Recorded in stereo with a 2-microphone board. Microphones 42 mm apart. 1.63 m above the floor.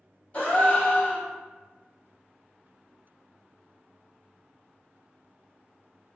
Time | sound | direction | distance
0.3 | a gasp | 30° left (ahead or behind) | 1.9 m